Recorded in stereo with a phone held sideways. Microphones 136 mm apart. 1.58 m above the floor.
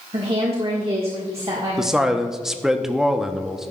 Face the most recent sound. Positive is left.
turn(degrees=-5)  # may be behind; listen again after turning